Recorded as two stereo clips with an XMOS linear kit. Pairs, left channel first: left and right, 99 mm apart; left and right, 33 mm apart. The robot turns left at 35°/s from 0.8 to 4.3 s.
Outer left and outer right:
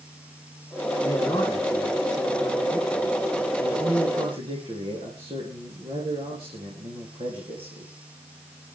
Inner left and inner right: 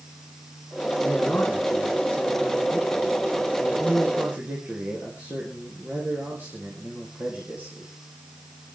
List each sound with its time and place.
1.0 s a man speaking: 40° left, 4 m; by 7.9 s 75° right, 4 m